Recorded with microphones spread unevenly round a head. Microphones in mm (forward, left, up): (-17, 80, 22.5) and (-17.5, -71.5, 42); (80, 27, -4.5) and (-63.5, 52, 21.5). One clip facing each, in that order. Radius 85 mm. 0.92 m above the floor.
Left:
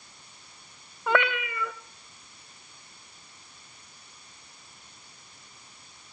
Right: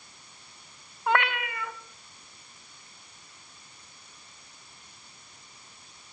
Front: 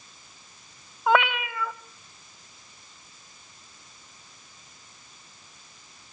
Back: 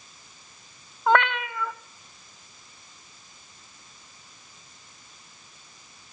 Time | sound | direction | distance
1.1 | a cat meowing | 80° left | 1.1 m